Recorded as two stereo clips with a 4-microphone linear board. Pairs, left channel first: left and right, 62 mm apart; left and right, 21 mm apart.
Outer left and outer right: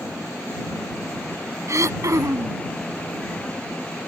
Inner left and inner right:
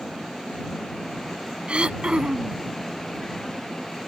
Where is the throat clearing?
60° right (ahead or behind).